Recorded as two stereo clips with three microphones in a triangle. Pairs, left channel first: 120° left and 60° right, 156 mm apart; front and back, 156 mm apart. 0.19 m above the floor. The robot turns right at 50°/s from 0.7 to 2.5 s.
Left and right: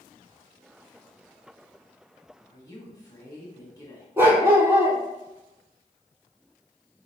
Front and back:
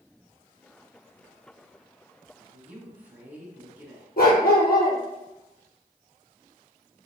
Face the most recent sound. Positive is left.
turn(degrees=15)